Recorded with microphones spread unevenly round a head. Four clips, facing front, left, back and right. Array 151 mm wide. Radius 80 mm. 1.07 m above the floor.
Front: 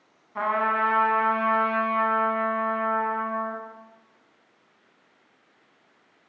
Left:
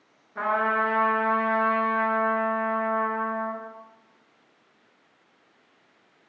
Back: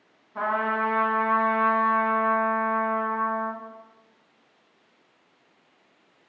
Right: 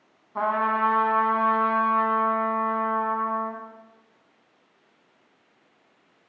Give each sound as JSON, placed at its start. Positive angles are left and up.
{"t": 0.3, "sound": "a trumpet", "azimuth_deg": -85, "distance_m": 1.4}